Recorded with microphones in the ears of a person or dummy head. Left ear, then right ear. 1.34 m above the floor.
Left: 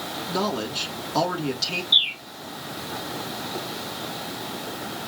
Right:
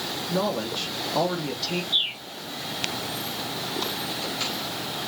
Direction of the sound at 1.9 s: 75° left (ahead or behind).